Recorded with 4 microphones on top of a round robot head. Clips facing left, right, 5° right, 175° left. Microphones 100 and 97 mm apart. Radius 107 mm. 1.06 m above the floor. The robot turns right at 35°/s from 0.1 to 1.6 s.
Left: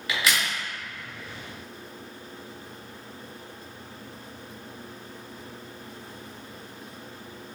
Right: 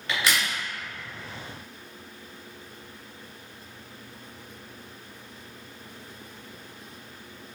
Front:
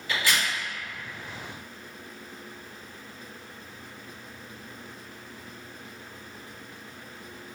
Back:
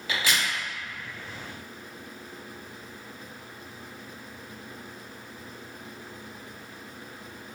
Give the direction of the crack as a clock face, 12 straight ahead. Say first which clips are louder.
Even, front 1 dB; 6 o'clock.